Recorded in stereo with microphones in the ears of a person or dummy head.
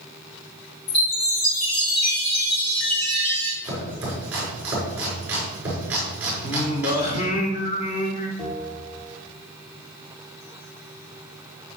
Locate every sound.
0.9 s a chime: 70° left (ahead or behind), 6 m
3.6 s chopping: 10° right (ahead or behind), 5.5 m
6.4 s singing: 45° left (ahead or behind), 2 m
8.4 s a bell: 5° left (ahead or behind), 3.5 m